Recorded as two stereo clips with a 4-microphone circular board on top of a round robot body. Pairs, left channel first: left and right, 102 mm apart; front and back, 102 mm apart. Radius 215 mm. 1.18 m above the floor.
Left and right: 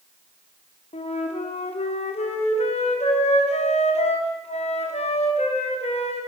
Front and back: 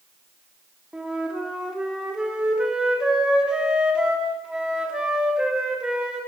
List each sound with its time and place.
0.9 s a flute: 95° left, 3.5 m